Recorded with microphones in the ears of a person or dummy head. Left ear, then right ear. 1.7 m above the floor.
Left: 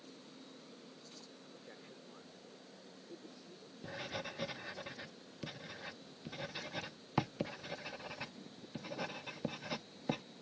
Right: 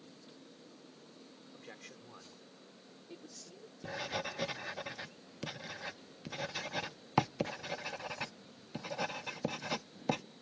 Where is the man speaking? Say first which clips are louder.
Right 3 dB; 80° right; by 3.7 s 70° right (ahead or behind).